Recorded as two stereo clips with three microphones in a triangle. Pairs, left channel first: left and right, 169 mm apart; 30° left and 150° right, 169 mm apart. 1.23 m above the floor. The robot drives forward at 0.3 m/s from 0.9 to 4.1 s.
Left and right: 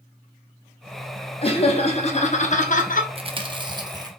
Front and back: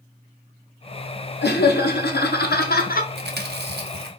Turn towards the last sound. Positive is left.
turn(degrees=-160)